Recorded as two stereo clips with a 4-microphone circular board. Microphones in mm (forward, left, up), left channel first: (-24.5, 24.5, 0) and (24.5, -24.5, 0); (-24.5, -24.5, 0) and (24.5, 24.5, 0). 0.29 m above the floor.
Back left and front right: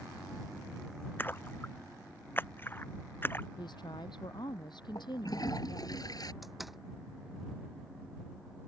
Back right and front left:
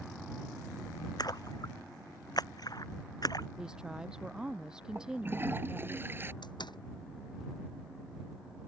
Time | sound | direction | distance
1.2 | a splash | 165° right | ?
3.6 | a woman speaking | 125° left | ?
5.0 | a toilet flushing | 105° left | ?
6.4 | a door slam | 135° right | ?